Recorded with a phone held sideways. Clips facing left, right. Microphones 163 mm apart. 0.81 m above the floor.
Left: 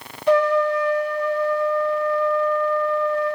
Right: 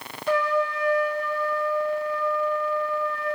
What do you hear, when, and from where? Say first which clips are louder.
0.3 s a trumpet: left 7 dB; 70° left (ahead or behind), 1.9 m